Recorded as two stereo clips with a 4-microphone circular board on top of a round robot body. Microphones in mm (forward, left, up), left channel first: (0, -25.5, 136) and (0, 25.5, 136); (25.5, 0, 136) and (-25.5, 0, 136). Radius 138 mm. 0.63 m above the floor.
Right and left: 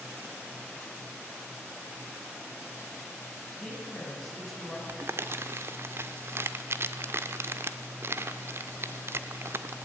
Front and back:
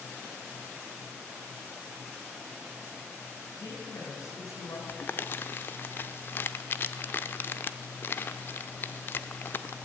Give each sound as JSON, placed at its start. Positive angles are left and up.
{"t": 3.5, "sound": "a woman speaking", "azimuth_deg": 0, "distance_m": 6.5}
{"t": 4.9, "sound": "crumpling", "azimuth_deg": 50, "distance_m": 0.5}